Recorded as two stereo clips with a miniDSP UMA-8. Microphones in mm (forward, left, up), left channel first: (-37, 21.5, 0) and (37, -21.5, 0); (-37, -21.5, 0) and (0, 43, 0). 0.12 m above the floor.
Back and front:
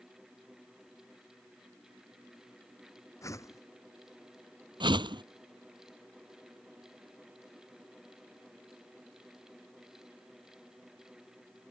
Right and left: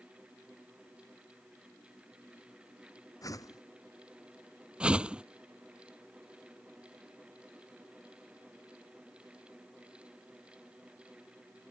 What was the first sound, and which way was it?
A whoosh, 155° right.